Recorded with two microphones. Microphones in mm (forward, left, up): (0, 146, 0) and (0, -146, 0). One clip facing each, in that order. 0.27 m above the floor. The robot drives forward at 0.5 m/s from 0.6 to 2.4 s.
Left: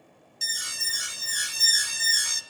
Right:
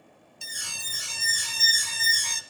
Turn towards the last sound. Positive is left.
turn(degrees=10)  # may be behind; listen again after turning